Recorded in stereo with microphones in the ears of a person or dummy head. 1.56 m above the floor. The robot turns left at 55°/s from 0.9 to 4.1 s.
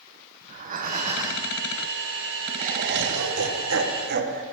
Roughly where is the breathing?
Behind right.